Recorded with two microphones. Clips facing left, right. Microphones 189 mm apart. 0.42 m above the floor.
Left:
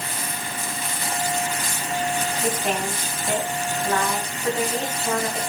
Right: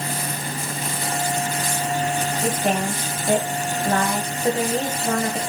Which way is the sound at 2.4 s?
35° right (ahead or behind).